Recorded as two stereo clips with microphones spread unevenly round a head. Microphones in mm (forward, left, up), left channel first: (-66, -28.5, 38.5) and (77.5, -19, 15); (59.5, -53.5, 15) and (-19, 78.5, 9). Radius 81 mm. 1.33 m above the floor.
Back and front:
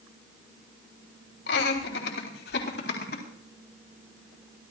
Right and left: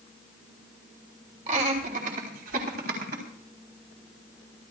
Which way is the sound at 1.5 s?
170° left.